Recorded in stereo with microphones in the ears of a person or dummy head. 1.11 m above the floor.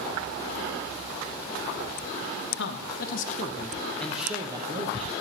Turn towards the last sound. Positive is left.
turn(degrees=-35)  # may be behind; listen again after turning